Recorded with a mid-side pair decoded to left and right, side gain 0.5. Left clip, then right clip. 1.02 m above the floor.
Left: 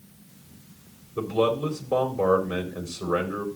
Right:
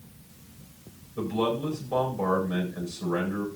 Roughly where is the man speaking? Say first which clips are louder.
Left 4 dB; ahead left.